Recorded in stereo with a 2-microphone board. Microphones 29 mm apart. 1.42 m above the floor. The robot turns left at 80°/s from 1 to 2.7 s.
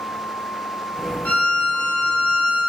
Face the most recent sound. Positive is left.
turn(degrees=0)